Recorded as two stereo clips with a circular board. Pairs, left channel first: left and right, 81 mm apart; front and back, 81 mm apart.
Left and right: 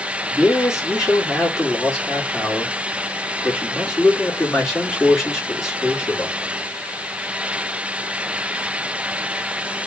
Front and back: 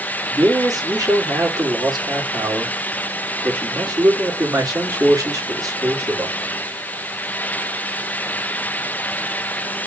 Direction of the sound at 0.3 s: 175° right.